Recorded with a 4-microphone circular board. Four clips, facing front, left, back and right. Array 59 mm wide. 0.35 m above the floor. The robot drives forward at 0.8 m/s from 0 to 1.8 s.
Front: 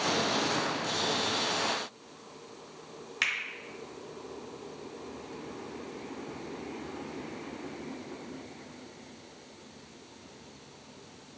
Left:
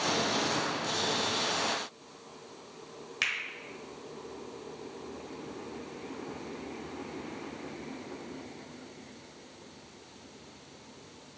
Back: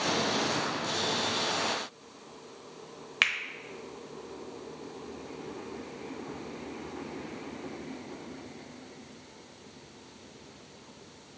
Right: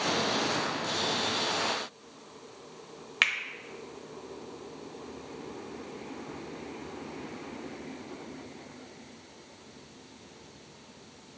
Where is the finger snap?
135° right, 0.8 m.